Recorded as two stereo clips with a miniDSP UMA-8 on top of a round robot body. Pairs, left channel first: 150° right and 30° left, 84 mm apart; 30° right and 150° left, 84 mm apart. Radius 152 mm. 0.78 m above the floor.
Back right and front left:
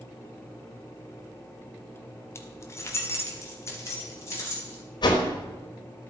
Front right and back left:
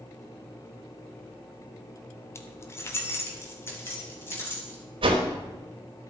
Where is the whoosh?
170° left, 1.0 m.